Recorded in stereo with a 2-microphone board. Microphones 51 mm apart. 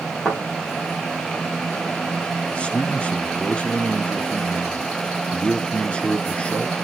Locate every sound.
0.2 s a thud: 10° left (ahead or behind), 5.5 m
2.5 s a man speaking: 20° left (ahead or behind), 1.1 m